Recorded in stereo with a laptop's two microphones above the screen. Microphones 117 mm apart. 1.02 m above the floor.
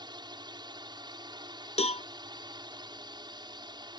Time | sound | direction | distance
0.0 | a drone | 40° right (ahead or behind) | ?
1.8 | a cowbell | 60° left (ahead or behind) | ?